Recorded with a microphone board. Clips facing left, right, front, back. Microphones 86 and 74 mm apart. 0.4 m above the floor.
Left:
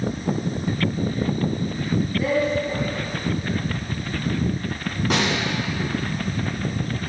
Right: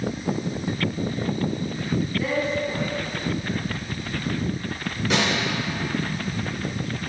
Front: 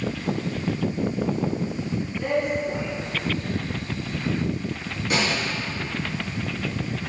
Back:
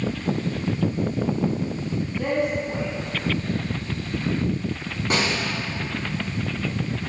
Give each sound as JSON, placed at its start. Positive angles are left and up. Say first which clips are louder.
{"t": 2.2, "sound": "a woman speaking", "louder": "left 6 dB, even", "azimuth_deg": 125, "distance_m": 3.0}
{"t": 5.1, "sound": "a snare drum", "louder": "even, even", "azimuth_deg": 135, "distance_m": 3.0}